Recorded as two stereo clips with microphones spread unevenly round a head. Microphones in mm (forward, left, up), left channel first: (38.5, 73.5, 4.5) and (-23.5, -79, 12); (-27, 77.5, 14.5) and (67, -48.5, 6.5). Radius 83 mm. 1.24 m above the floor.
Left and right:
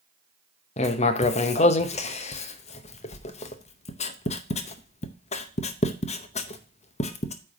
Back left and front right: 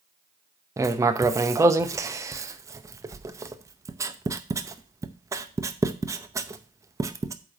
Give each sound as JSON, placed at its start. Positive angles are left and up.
{"t": 0.8, "sound": "writing", "azimuth_deg": 20, "distance_m": 0.7}